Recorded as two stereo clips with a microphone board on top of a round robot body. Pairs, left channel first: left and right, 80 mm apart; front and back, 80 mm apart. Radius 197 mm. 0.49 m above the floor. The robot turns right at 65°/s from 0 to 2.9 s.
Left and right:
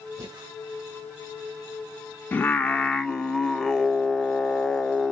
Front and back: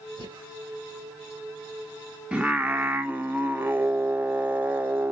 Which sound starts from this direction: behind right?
Breathing, at 0.2 s.